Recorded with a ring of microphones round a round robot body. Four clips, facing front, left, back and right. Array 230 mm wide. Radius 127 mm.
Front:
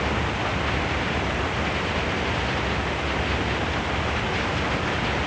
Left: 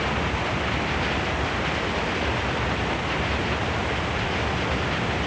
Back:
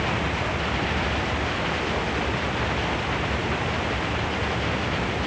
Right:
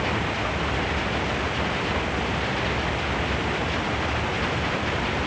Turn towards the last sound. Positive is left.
No sound to turn to.